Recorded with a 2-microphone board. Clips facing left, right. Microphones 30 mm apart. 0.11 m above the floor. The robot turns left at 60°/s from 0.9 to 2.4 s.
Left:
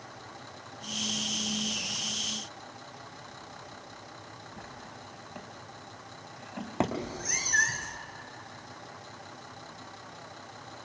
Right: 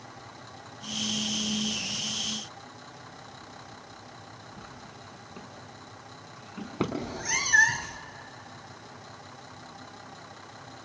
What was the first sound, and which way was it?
A drawer, 80° left.